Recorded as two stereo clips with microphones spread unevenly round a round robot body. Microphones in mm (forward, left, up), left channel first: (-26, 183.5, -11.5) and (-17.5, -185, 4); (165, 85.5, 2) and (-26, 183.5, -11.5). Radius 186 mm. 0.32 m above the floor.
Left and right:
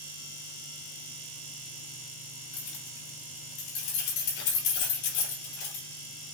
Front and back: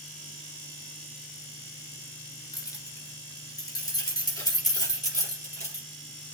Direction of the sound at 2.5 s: 45° left.